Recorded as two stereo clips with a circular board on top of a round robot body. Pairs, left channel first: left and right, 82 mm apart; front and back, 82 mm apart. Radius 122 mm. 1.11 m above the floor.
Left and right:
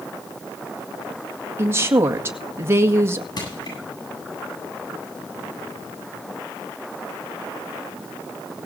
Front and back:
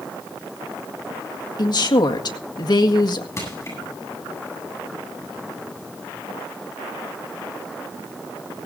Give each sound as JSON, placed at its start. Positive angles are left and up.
{"t": 1.6, "sound": "a woman speaking", "azimuth_deg": -30, "distance_m": 1.9}
{"t": 3.4, "sound": "crushing", "azimuth_deg": 55, "distance_m": 8.5}